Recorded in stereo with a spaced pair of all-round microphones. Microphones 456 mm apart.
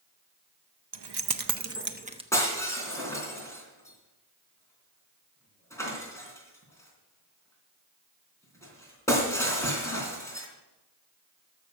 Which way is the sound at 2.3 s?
5° left (ahead or behind).